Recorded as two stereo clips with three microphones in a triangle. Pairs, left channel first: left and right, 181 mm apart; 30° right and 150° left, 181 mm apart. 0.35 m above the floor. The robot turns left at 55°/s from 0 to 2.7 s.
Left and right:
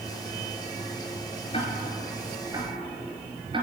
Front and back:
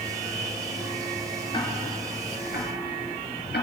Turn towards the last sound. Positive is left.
turn(degrees=-30)